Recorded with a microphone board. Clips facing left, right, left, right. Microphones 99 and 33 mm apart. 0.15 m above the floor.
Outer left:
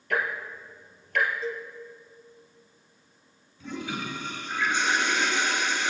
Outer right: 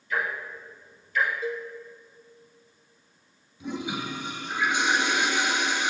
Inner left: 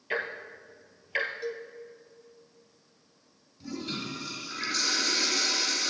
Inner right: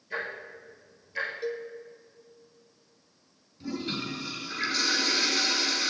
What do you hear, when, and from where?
0.1 s ticking: 70° left (ahead or behind), 2.5 m
1.4 s a cowbell: 15° right (ahead or behind), 1.3 m
3.6 s a toilet flushing: 15° right (ahead or behind), 3 m